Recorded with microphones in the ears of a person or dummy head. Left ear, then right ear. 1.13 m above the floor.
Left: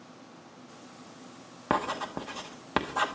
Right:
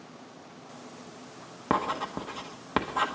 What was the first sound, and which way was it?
Writing, 5° left (ahead or behind).